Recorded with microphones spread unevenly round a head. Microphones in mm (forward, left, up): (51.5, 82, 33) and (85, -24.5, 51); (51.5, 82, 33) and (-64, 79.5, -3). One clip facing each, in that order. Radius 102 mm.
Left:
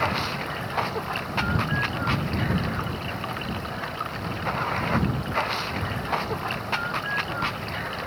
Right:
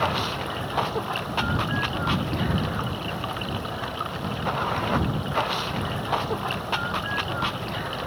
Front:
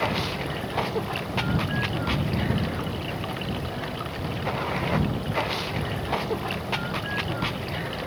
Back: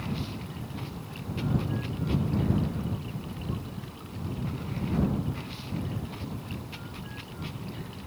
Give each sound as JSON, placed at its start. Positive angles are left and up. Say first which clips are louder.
{"t": 0.0, "sound": "running water", "louder": "right 1 dB, front 8 dB", "azimuth_deg": 5}